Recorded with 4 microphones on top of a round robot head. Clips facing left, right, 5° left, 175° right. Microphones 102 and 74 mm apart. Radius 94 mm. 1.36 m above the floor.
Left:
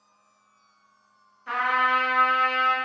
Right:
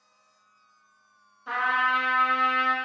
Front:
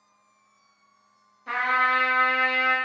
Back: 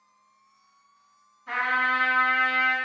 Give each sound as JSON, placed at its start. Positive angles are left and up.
{"t": 1.5, "sound": "a trumpet", "azimuth_deg": -25, "distance_m": 0.7}